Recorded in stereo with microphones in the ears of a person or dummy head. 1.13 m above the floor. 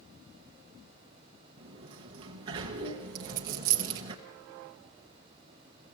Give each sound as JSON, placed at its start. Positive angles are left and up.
{"t": 1.6, "sound": "a sliding door", "side_deg": -30, "distance_m": 1.2}
{"t": 3.1, "sound": "a dropped coin", "side_deg": -20, "distance_m": 0.6}